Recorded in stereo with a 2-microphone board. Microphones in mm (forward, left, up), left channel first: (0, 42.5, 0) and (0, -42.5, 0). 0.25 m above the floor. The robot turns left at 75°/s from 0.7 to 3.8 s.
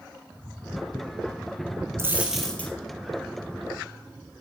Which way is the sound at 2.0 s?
150° right.